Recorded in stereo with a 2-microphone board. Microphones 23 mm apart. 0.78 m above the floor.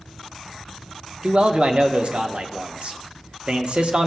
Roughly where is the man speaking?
Right.